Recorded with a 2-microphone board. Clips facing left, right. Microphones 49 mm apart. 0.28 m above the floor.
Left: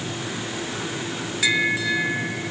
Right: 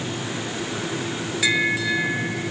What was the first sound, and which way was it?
Only background noise.